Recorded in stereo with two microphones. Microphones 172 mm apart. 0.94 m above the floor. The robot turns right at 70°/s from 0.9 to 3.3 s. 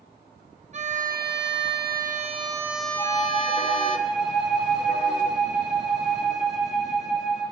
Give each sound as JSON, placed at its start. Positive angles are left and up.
{"t": 0.7, "sound": "a violin", "azimuth_deg": -135, "distance_m": 1.8}
{"t": 3.0, "sound": "a flute", "side_deg": 20, "distance_m": 6.5}